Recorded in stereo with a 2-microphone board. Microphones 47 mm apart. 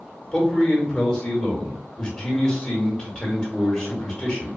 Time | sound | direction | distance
0.3 | a man speaking | 15° left (ahead or behind) | 1.4 m